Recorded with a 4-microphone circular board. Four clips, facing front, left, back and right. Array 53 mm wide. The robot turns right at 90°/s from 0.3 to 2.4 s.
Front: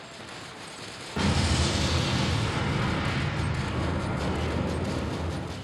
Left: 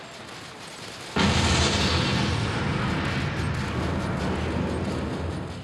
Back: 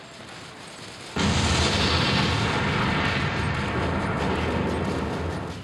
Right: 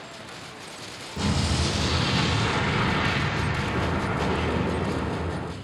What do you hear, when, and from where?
1.2 s an explosion: 105° left, 0.9 m; by 5.5 s 145° right, 0.9 m